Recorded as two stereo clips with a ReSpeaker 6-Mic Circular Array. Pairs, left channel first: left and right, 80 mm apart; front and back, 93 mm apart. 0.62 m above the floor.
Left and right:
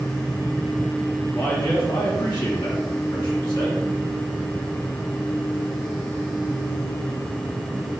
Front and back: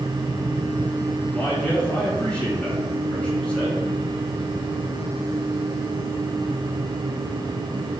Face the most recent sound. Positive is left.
turn(degrees=75)